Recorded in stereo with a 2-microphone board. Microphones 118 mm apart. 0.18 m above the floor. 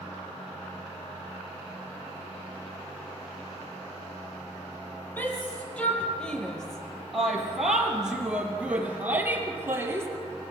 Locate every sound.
5.2 s a shout: 15° left (ahead or behind), 4.5 m; by 10.1 s 20° right (ahead or behind), 4 m